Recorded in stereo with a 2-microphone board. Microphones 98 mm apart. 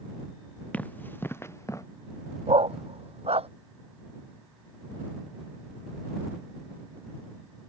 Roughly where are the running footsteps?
Centre.